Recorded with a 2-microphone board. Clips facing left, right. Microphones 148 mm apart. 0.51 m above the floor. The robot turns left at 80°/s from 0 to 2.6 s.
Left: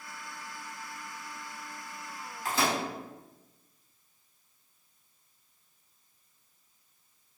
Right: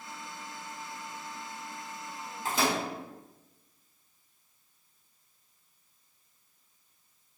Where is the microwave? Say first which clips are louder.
Even; 25° right (ahead or behind), 1.1 m; by 2.8 s 15° right (ahead or behind), 1.1 m.